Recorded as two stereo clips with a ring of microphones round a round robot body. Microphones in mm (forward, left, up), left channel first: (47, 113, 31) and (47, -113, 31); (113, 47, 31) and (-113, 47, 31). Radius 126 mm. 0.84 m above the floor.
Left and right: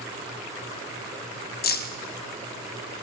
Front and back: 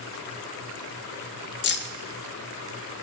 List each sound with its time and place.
1.6 s keys jangling: 40° left, 0.7 m